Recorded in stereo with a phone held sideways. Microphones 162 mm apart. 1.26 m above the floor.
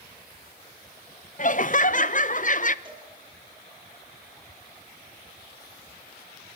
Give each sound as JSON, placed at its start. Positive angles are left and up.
{"t": 1.4, "sound": "laughter", "side_deg": 50, "distance_m": 0.9}
{"t": 2.9, "sound": "a cowbell", "side_deg": -25, "distance_m": 7.5}